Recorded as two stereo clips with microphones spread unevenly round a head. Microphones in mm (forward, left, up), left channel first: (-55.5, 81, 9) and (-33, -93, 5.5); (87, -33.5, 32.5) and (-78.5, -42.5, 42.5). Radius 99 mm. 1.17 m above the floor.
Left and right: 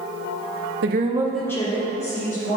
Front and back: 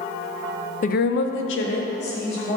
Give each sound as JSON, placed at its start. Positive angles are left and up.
{"t": 0.8, "sound": "a woman speaking", "azimuth_deg": -45, "distance_m": 0.6}